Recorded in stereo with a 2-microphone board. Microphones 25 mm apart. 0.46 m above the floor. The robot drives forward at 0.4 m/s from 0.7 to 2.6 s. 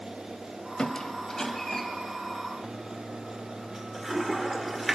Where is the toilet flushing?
5° right (ahead or behind), 1.4 m.